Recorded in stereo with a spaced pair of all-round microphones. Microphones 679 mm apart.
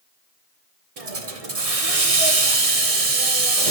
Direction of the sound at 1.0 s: 55° right (ahead or behind).